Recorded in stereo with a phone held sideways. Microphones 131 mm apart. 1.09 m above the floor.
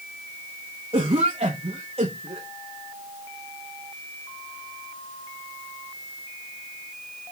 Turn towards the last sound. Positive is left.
turn(degrees=-50)  # may be behind; listen again after turning